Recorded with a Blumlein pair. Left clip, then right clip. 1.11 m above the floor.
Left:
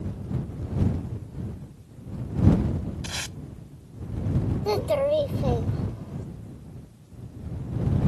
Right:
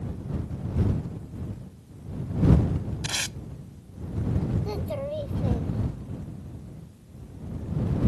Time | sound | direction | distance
3.0 | tape being pulled | 15° right | ?
4.7 | a child speaking | 65° left | ?